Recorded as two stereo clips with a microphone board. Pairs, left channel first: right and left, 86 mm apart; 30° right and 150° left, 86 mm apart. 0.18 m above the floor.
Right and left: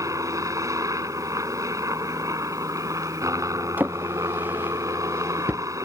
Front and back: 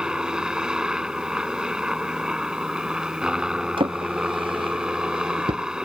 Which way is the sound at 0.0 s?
75° left.